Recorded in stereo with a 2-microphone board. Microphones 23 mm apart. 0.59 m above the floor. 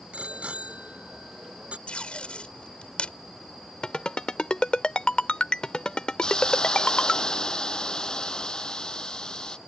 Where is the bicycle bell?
65° right (ahead or behind).